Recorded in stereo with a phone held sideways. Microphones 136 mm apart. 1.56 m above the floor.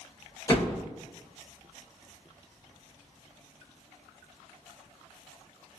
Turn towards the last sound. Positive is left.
turn(degrees=25)  # may be behind; listen again after turning